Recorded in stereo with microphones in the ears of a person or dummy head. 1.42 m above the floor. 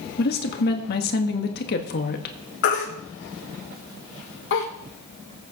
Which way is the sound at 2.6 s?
65° left (ahead or behind).